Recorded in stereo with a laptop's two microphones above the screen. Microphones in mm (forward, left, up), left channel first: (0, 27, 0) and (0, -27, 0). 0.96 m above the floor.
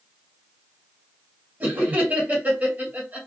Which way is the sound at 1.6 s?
30° right (ahead or behind).